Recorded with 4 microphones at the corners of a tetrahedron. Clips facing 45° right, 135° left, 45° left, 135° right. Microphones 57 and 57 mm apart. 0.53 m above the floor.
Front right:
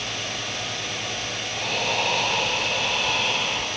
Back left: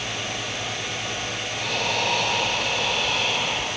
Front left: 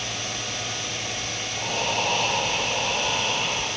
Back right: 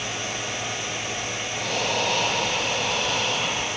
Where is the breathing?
130° right, 7.5 m.